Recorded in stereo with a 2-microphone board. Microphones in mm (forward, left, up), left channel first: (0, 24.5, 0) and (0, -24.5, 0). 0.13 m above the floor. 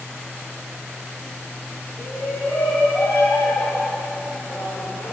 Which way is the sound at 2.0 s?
55° left (ahead or behind).